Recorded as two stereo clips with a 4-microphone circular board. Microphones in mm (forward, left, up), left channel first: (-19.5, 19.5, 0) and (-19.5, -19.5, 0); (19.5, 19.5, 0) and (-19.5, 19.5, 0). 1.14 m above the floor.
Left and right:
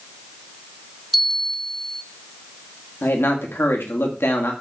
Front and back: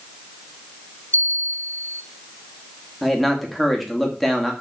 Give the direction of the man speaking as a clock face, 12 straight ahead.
9 o'clock.